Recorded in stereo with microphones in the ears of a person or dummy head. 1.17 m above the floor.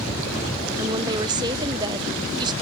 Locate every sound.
0.8 s a woman speaking: 25° right (ahead or behind), 0.8 m